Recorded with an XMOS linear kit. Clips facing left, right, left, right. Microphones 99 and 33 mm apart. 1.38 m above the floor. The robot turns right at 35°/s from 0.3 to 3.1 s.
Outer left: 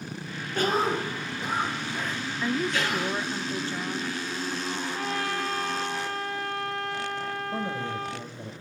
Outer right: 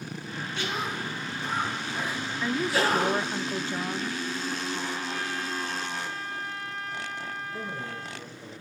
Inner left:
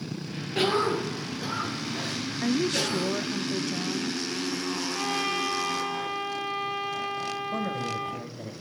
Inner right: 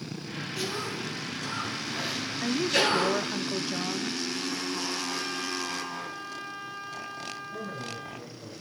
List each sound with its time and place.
0.6 s a cough: 135° left, 1.0 m; by 3.4 s 135° right, 1.0 m
2.4 s a woman speaking: 5° left (ahead or behind), 0.6 m; by 4.2 s 15° right (ahead or behind), 0.6 m
4.9 s a trumpet: 85° left, 3.5 m
7.5 s a man speaking: 65° left (ahead or behind), 5.5 m